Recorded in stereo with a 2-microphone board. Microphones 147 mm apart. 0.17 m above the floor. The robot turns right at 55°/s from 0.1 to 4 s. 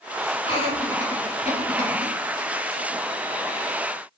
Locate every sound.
0.4 s laughter: 35° left (ahead or behind), 1.9 m; by 2.1 s 25° left (ahead or behind), 1.9 m